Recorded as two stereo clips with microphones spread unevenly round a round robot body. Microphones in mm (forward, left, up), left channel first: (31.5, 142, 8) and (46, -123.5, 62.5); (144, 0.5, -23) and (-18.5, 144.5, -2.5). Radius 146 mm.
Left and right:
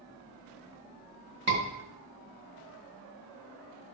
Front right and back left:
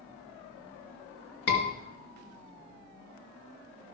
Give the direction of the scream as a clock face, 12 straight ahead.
1 o'clock.